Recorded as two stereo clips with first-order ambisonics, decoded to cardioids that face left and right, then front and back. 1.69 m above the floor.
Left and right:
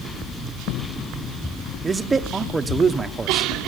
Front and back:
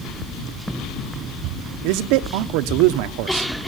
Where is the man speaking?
165° right, 1.0 m.